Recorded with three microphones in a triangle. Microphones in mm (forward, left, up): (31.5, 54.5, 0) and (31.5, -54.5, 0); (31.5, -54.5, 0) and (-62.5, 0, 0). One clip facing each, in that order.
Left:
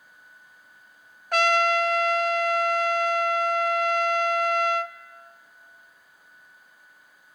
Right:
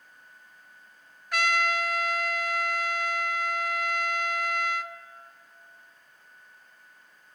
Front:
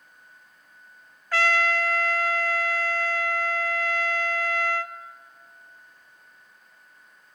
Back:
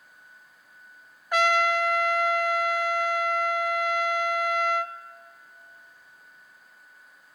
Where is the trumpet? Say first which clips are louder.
Left 6 dB, back 1 dB; 85° left, 0.5 m.